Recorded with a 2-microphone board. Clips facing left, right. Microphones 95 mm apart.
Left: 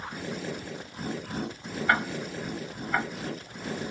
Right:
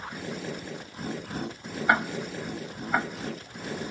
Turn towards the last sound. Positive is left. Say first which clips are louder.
# right 2 dB
turn(degrees=-20)  # may be behind; listen again after turning